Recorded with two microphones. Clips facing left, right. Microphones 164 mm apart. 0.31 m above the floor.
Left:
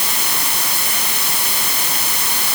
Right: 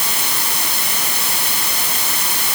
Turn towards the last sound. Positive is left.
No sound to turn to.